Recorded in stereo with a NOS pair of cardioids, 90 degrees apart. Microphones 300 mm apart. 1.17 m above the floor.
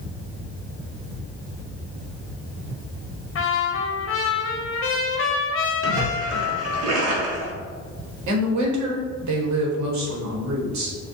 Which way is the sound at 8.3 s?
65° right.